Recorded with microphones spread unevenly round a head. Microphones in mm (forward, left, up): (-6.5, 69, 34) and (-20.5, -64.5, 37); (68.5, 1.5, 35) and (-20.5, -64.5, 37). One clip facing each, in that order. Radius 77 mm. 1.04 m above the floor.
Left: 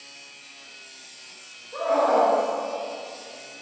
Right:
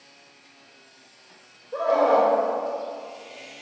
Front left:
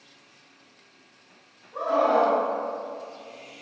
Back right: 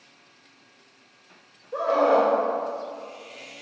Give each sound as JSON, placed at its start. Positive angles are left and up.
{"t": 1.7, "sound": "a scream", "azimuth_deg": -140, "distance_m": 4.0}